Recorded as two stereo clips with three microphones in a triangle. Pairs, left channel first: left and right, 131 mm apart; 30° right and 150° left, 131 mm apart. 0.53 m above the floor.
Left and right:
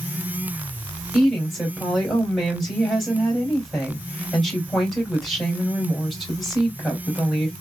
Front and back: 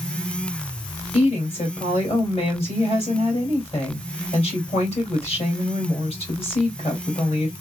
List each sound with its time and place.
1.1 s a woman speaking: straight ahead, 2 m